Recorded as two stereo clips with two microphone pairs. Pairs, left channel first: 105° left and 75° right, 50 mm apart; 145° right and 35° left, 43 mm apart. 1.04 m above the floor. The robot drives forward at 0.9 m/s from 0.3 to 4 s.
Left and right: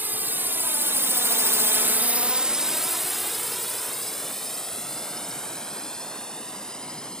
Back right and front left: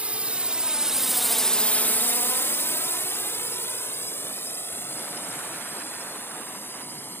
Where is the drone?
25° right; by 7.2 s straight behind.